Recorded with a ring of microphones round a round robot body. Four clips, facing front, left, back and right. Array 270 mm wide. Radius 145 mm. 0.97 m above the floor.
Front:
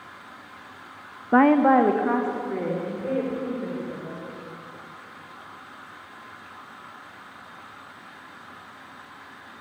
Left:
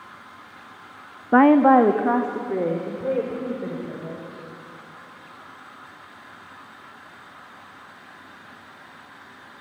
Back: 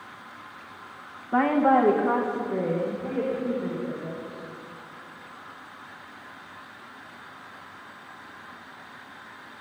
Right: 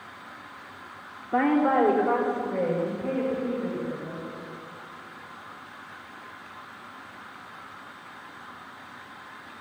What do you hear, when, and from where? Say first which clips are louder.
1.3 s a woman speaking: left 8 dB, front 4 dB; 60° left, 0.7 m; by 4.4 s 90° left, 5.5 m